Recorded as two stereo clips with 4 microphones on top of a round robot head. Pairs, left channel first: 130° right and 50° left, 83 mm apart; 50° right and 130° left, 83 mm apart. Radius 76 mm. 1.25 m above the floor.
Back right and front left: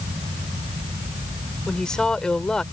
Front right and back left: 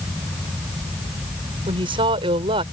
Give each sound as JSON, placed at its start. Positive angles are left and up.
{"t": 1.7, "sound": "a woman speaking", "azimuth_deg": 150}